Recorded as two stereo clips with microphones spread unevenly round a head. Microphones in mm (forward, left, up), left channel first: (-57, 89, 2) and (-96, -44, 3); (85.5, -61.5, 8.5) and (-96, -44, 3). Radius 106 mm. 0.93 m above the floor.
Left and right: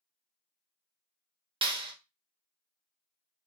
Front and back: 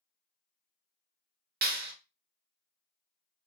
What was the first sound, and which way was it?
A clap, 155° right.